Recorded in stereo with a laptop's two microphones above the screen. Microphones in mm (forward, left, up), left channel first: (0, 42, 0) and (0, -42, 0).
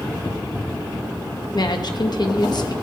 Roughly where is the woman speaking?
Left.